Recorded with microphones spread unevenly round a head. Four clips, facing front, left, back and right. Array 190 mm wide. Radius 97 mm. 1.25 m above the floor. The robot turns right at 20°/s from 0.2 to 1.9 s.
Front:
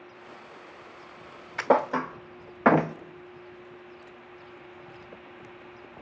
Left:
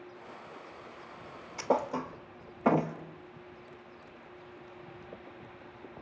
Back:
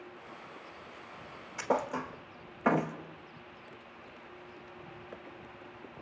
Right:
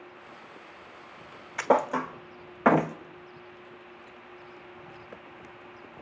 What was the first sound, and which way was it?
A thud, 15° right.